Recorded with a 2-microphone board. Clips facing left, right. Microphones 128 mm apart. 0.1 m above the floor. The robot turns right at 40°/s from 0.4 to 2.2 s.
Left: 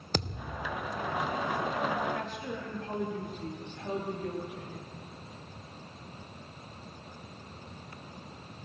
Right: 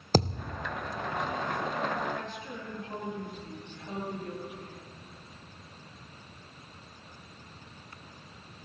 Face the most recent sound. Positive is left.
turn(degrees=85)